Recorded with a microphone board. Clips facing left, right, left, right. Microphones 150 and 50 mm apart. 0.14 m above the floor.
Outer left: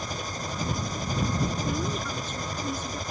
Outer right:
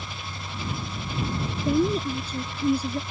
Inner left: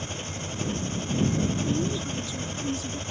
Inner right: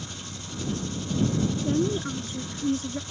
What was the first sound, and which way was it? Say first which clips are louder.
An engine running: outer left 5 dB, inner left 5 dB; 40° left (ahead or behind).